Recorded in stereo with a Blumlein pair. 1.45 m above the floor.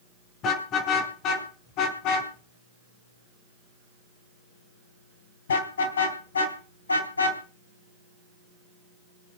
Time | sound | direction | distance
0.4 | a car horn | 35° left | 6.5 m